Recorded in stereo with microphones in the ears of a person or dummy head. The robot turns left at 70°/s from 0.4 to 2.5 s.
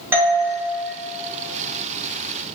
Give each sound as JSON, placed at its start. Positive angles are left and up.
{"t": 0.1, "sound": "a doorbell", "side_deg": -10, "distance_m": 1.3}